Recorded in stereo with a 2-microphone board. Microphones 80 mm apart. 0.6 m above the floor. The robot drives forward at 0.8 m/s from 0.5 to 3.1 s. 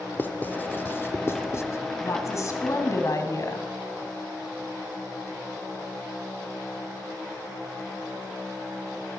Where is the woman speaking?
40° left (ahead or behind), 5 m; by 3.7 s 50° left (ahead or behind), 4.5 m.